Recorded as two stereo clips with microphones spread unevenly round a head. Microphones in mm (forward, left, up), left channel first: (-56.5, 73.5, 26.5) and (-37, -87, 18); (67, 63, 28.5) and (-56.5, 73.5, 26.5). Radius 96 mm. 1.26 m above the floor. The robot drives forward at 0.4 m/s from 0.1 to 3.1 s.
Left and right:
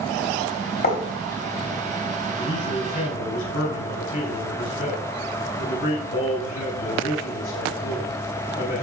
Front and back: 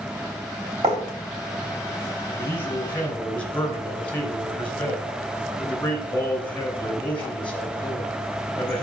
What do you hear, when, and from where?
0.8 s writing: 130° left, 3 m
2.4 s a man speaking: 70° left, 3 m; by 8.8 s 75° left, 3 m